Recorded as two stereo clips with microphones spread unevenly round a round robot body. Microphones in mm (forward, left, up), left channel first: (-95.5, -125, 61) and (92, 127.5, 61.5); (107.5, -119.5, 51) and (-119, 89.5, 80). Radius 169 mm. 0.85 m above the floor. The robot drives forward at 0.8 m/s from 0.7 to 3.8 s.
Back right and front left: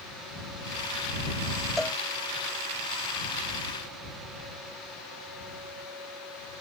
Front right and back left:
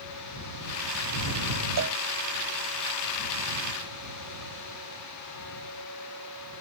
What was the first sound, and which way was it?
A cowbell, 145° left.